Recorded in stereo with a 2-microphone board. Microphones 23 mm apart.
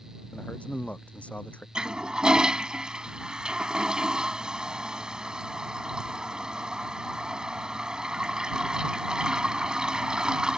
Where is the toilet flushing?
40° right (ahead or behind).